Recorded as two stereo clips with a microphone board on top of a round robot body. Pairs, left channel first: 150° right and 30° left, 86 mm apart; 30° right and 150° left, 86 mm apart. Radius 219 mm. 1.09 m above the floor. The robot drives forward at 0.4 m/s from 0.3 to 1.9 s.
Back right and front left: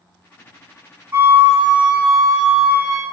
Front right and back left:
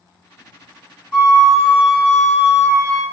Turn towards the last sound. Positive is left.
turn(degrees=110)